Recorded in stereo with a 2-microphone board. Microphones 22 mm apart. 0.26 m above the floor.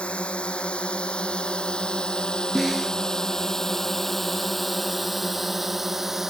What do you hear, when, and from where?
0.0 s a drone: 60° left (ahead or behind); by 6.3 s 20° right (ahead or behind)
2.5 s a snare drum: 10° right (ahead or behind)